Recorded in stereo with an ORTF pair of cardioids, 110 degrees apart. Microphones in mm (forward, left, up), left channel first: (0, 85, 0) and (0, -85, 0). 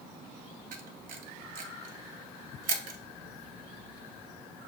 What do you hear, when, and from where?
0.7 s a camera shutter: 55° right, 0.8 m